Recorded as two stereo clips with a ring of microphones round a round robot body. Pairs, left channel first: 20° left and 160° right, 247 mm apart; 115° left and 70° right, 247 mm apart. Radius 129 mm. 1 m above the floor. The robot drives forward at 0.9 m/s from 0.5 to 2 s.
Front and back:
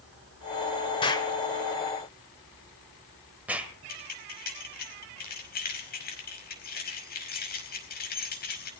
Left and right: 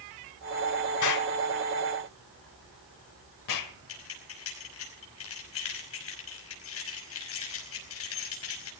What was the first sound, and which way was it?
An explosion, 95° left.